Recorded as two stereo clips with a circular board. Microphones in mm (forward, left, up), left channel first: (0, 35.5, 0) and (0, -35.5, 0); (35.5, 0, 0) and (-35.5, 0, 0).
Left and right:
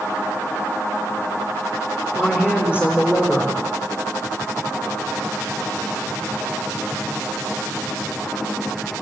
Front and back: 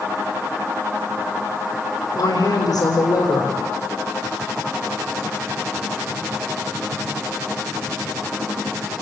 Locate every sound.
2.1 s a woman speaking: 35° left, 6.5 m